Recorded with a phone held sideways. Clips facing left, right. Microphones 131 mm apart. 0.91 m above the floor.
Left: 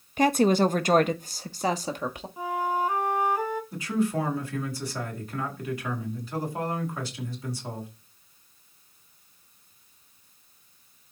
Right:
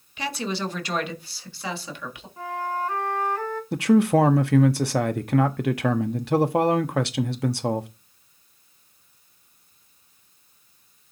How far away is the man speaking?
About 1.0 m.